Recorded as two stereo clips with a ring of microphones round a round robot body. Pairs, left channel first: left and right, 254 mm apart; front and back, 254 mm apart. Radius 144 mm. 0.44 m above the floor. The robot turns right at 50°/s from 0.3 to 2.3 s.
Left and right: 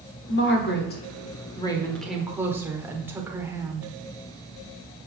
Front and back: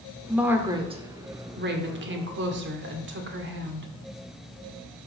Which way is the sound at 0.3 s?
90° left.